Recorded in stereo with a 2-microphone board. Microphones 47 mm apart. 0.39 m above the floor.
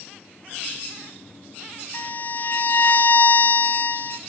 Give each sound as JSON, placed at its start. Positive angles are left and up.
{"t": 1.9, "sound": "a violin", "side_deg": 45, "distance_m": 0.8}